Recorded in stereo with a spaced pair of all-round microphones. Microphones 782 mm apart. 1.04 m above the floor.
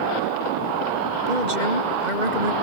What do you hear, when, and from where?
1.3 s a woman speaking: 65° right (ahead or behind); by 2.5 s 60° right (ahead or behind)